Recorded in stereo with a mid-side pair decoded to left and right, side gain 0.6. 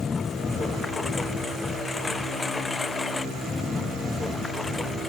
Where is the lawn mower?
25° left; by 5.1 s 20° left.